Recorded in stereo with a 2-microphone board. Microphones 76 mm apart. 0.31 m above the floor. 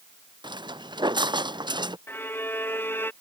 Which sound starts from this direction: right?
Footsteps, at 0.4 s.